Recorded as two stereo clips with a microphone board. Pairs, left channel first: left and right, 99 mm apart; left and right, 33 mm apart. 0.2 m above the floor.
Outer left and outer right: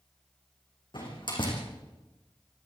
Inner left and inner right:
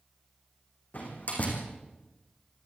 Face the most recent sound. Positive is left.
turn(degrees=50)  # may be behind; listen again after turning